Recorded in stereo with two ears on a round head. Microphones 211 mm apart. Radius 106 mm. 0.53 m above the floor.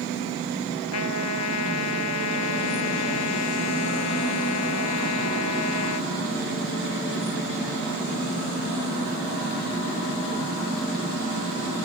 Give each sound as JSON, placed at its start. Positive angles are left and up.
{"t": 0.9, "sound": "a trumpet", "side_deg": 85}